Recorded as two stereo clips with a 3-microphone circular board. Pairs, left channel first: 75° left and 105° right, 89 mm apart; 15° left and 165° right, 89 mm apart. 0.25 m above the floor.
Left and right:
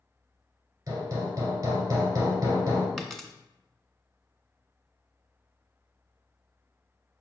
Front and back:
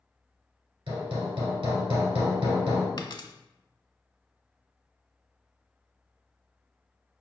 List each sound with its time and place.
0.9 s hammering: 155° right, 2 m
3.0 s a dropped coin: 10° right, 0.6 m